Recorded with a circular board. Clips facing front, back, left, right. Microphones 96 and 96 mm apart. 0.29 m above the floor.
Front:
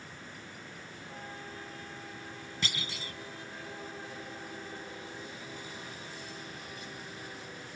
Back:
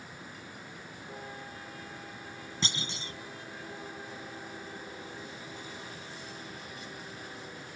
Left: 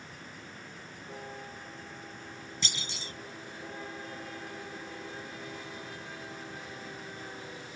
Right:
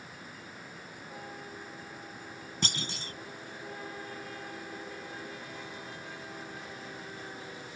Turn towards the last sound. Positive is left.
turn(degrees=-120)